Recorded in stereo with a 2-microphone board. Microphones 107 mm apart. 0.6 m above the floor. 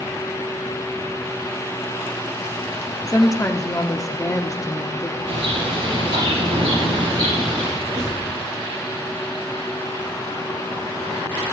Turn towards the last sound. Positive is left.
turn(degrees=-80)